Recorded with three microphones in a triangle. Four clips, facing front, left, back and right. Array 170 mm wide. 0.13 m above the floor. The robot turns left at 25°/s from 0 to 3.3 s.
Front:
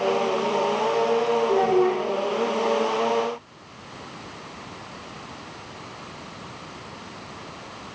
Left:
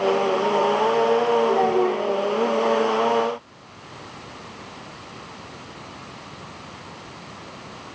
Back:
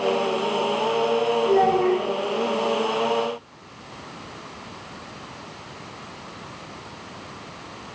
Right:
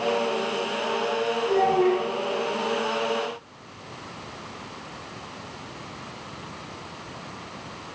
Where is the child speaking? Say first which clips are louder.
Left 1 dB, back 3 dB; 145° left, 8.5 m; by 2.0 s 130° left, 8.5 m.